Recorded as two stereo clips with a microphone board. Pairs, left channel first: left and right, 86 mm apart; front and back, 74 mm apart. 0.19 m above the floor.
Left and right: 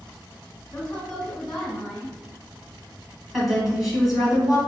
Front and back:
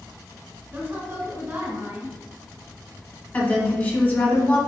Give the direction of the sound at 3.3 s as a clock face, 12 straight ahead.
12 o'clock.